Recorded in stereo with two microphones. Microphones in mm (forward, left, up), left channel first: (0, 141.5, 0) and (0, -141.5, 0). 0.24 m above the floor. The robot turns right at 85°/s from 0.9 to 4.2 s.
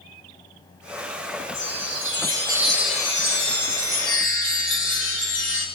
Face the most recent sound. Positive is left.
turn(degrees=130)